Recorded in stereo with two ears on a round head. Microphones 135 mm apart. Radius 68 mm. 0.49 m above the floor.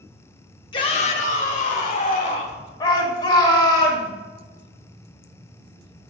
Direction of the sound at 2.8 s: 30° left (ahead or behind).